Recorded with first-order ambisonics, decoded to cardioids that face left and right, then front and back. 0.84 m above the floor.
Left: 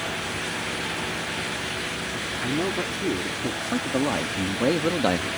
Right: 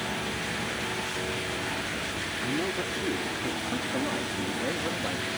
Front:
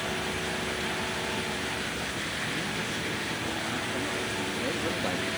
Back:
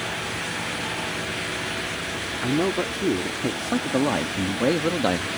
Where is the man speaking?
165° left; by 5.3 s 125° left.